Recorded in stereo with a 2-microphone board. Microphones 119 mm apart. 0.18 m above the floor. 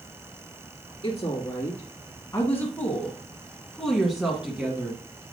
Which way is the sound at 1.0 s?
40° left (ahead or behind).